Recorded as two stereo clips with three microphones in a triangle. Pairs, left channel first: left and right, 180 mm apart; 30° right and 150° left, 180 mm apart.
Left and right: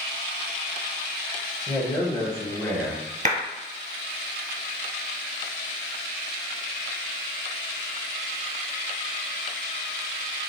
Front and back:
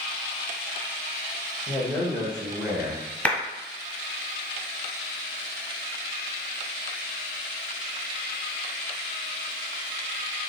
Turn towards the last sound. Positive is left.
turn(degrees=-110)